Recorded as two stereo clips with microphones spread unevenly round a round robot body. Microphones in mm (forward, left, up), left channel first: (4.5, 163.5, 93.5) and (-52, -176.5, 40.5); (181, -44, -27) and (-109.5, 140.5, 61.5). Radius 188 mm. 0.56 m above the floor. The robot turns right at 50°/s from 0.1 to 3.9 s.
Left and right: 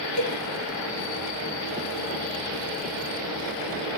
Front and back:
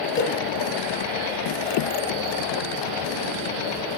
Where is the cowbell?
35° left, 3 m; by 0.4 s 45° left, 3 m.